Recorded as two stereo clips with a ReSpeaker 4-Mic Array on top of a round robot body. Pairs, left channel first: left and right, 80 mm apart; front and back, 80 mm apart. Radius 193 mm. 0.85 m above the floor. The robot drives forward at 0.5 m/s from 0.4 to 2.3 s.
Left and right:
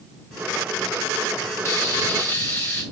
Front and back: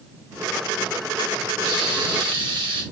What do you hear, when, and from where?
1.6 s frying: 145° left, 1.1 m; by 2.8 s 155° left, 1.4 m